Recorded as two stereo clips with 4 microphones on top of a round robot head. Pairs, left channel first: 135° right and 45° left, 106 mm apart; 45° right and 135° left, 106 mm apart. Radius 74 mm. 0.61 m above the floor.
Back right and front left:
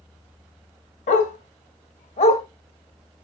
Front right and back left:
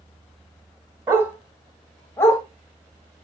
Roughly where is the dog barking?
Behind.